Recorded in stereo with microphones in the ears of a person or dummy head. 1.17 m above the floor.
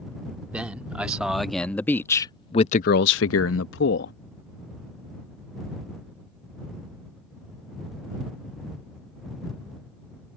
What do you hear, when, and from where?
0.5 s a man speaking: 10° right (ahead or behind); by 4.2 s 60° left (ahead or behind)